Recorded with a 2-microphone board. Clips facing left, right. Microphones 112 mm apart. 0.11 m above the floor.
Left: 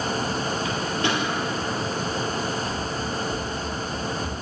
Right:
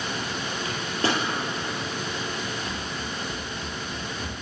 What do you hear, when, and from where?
0.7 s a microwave: 35° right (ahead or behind), 1.9 m
2.7 s running footsteps: 55° right (ahead or behind), 1.0 m; by 4.3 s 25° right (ahead or behind), 3 m